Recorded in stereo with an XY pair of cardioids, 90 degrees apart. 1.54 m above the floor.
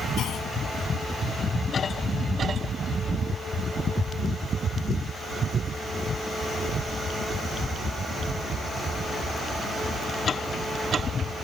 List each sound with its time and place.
0.2 s a clunk: 70° left